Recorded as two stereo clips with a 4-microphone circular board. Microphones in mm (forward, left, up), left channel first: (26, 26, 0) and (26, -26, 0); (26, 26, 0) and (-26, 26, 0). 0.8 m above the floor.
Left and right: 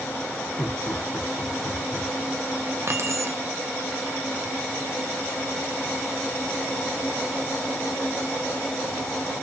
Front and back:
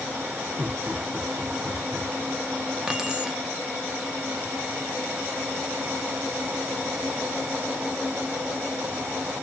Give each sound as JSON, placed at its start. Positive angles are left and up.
{"t": 0.6, "sound": "laughter", "azimuth_deg": 100, "distance_m": 1.1}
{"t": 2.9, "sound": "keys jangling", "azimuth_deg": -100, "distance_m": 0.6}